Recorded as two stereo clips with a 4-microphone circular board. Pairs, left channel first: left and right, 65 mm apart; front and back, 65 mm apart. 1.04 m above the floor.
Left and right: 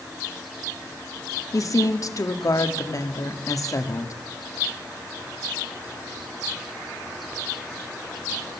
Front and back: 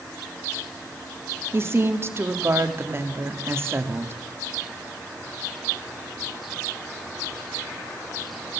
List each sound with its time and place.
1.5 s a woman speaking: 130° left, 1.9 m